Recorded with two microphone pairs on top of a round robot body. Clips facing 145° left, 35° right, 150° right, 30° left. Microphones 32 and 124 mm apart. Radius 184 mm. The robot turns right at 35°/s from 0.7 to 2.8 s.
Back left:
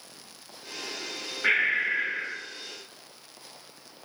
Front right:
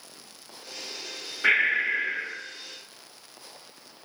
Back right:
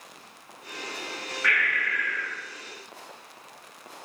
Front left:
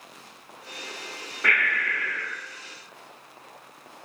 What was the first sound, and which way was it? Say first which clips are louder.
Breathing: front right 2 dB, front left 2 dB; 40° left.